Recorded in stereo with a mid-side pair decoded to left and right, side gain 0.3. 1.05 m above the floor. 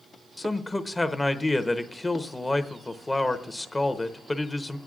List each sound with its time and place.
0.4 s a man speaking: 30° left, 0.9 m